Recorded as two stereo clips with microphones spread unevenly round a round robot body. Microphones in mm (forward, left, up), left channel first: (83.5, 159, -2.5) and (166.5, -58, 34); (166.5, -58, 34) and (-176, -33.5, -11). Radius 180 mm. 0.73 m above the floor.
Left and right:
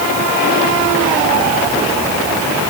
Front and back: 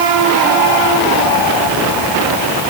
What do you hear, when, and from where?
Only background noise.